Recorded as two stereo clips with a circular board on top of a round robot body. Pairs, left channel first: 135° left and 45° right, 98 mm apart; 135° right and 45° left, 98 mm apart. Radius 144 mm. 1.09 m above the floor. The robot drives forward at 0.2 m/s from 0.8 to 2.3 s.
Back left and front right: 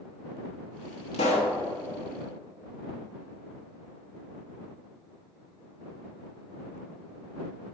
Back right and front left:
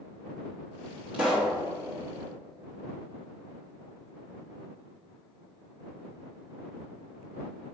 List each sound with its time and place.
1.1 s a pop: 120° left, 0.5 m; by 1.5 s 130° left, 0.6 m